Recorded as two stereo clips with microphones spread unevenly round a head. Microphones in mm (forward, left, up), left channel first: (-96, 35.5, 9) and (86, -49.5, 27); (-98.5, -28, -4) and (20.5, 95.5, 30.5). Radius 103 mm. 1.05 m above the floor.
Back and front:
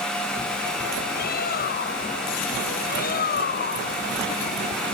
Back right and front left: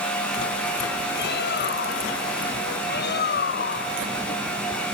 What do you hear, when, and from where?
1.1 s a bird: 160° right